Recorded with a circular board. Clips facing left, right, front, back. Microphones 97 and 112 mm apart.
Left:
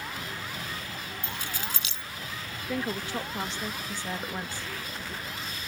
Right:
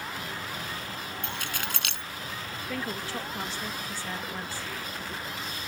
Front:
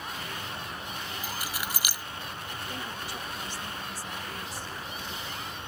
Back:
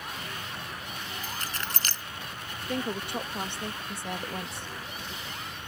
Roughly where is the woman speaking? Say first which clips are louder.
Left 3 dB, back 9 dB; behind.